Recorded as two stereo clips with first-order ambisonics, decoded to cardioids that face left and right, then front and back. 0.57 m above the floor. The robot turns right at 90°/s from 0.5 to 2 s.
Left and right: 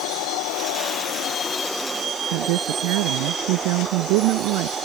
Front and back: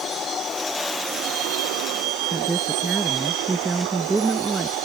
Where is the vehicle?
65° left; by 4.8 s 160° right.